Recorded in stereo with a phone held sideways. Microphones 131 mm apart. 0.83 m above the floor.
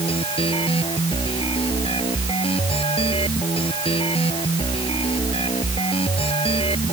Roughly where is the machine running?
Left.